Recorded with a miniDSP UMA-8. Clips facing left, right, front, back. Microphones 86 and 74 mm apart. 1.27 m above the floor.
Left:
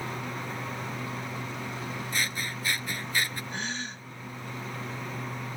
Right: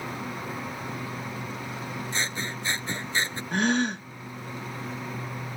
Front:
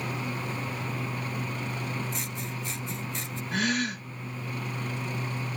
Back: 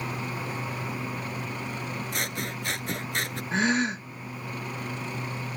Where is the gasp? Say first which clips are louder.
Right 11 dB, back 3 dB; 115° right.